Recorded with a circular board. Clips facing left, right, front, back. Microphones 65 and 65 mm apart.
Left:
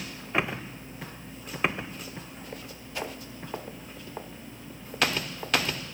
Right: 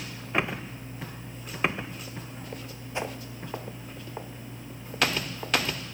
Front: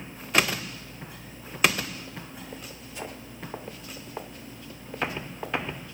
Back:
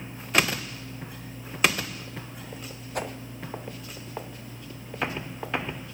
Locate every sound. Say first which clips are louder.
3.0 s a whoosh: right 2 dB, back 6 dB; 155° right, 0.9 m